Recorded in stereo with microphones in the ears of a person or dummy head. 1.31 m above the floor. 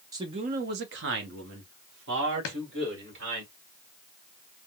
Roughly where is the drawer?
Left.